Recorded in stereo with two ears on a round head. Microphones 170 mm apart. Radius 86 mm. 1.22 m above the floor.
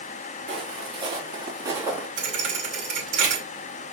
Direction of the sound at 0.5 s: 30° right (ahead or behind).